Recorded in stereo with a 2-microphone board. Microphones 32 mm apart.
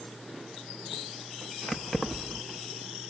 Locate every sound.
1.7 s keys jangling: 10° left (ahead or behind), 0.7 m